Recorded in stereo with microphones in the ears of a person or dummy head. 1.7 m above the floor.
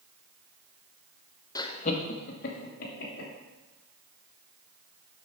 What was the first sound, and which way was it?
Laughter, 20° left (ahead or behind).